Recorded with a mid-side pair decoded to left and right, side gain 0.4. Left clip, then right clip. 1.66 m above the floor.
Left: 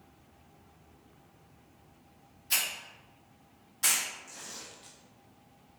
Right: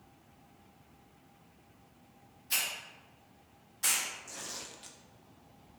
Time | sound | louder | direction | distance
2.5 | a hiss | left 2 dB | 35° left | 0.6 m
4.3 | tearing paper | right 2 dB | 45° right | 0.7 m